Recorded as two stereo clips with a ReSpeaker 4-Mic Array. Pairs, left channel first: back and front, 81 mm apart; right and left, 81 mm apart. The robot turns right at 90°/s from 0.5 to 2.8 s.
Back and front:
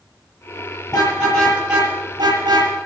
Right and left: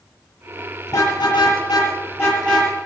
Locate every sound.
0.9 s a car horn: 150° right, 8 m; by 2.7 s 10° left, 8 m